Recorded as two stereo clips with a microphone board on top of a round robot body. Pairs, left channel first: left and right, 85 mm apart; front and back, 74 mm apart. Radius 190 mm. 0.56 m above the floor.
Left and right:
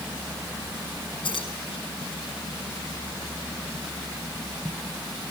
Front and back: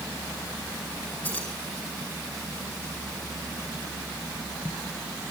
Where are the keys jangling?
65° left, 6.5 m.